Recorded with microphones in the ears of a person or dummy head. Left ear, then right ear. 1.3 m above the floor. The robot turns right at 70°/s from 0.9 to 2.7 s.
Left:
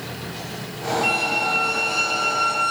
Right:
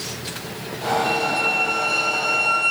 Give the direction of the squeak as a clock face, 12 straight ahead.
8 o'clock.